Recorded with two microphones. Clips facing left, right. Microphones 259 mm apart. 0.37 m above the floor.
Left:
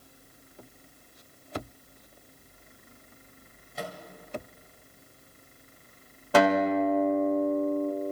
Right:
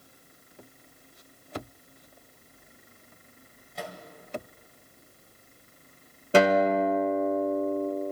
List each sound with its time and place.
3.8 s a microwave: centre (ahead or behind), 1.8 m
6.3 s a guitar: 30° right (ahead or behind), 1.2 m